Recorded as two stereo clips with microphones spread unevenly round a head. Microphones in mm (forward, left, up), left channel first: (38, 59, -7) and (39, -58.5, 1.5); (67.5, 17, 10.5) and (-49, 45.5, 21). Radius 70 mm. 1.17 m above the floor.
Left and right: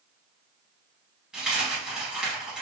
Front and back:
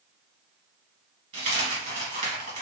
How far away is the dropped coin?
About 1.5 m.